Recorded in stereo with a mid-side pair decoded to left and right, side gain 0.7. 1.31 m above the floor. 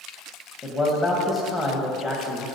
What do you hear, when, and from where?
0.6 s a man speaking: 10° left, 1.4 m